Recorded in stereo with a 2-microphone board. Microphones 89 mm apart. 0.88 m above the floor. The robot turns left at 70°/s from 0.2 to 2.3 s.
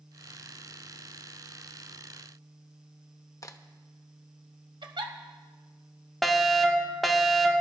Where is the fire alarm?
Centre (ahead or behind), 1.2 m.